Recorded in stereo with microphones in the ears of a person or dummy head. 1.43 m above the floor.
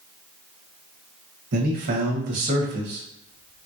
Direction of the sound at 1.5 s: 50° right (ahead or behind).